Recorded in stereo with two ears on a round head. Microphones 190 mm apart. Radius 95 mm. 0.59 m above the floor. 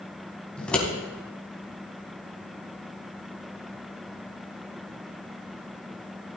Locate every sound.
0.6 s scissors: 5° left (ahead or behind), 3.5 m